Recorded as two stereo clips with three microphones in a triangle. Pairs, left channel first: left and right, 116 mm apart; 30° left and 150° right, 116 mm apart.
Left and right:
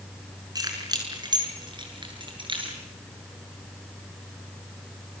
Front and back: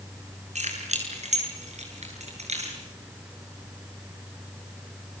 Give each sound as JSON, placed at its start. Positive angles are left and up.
{"t": 0.6, "sound": "keys jangling", "azimuth_deg": -145, "distance_m": 6.0}